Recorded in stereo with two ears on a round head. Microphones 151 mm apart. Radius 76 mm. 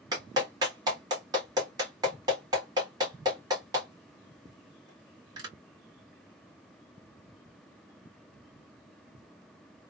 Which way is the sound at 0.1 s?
25° right (ahead or behind).